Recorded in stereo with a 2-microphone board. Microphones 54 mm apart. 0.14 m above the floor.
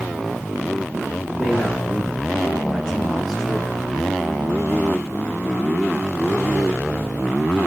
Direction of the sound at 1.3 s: 25° left (ahead or behind).